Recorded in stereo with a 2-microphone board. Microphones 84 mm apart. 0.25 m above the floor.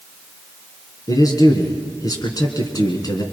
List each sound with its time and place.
1.1 s a man speaking: 45° left (ahead or behind), 3.5 m